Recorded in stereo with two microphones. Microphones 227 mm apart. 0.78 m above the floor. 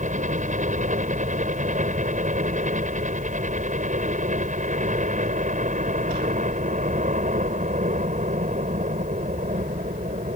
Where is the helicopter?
35° right (ahead or behind).